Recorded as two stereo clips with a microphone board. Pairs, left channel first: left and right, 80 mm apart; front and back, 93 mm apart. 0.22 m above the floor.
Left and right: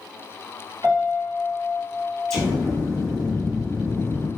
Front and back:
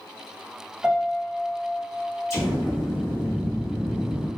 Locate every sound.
0.8 s a piano: 110° right, 1.1 m
2.3 s an explosion: 10° left, 1.4 m